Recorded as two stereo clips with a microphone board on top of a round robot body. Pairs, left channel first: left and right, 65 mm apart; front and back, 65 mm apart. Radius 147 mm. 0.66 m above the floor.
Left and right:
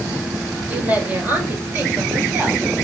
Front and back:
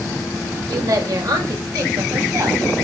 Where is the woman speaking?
160° right, 4 m; by 2.6 s 150° right, 7 m.